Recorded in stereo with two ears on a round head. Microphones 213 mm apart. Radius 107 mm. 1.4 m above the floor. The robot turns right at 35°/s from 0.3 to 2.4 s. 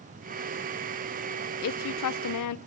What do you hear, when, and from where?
1.6 s a woman speaking: 60° left (ahead or behind), 0.6 m; by 2.6 s 75° left (ahead or behind), 0.6 m